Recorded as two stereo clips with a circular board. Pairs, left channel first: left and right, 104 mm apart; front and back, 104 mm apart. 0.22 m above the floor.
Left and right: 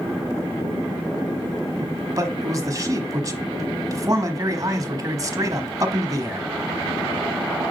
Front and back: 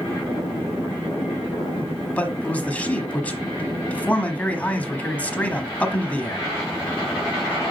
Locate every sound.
1.8 s a man speaking: 65° right, 1.2 m